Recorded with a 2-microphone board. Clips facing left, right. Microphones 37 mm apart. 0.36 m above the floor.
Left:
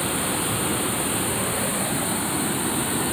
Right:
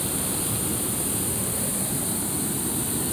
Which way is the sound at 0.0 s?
40° left (ahead or behind).